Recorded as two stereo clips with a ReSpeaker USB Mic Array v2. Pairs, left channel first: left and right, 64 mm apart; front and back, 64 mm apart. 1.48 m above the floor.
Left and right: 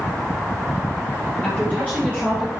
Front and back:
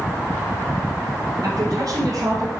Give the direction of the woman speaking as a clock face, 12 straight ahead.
7 o'clock.